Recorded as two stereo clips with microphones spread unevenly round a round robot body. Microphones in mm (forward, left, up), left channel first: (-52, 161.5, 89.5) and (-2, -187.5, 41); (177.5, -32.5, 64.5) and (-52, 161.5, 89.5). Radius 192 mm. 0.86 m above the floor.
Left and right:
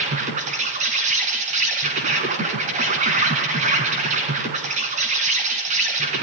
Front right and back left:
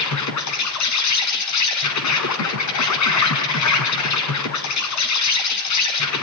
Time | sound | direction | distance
0.0 | an insect | 10° right | 3.5 m